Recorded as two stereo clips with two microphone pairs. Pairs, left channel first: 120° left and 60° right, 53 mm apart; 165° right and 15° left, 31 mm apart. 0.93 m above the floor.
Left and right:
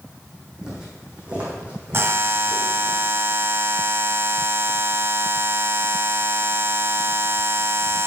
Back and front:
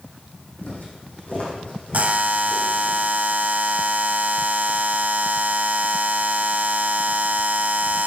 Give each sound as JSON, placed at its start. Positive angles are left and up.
{"t": 0.6, "sound": "footsteps", "azimuth_deg": -135, "distance_m": 3.0}
{"t": 1.9, "sound": "a buzzer", "azimuth_deg": -25, "distance_m": 0.8}